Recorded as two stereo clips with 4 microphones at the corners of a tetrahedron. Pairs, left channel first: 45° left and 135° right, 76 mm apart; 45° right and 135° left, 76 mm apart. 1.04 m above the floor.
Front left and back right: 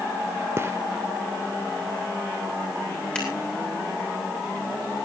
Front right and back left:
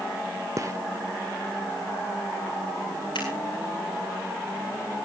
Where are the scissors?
30° right, 9 m.